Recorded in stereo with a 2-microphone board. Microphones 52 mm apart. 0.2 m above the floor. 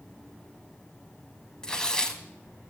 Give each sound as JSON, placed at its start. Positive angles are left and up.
{"t": 1.6, "sound": "tearing paper", "side_deg": 20, "distance_m": 0.7}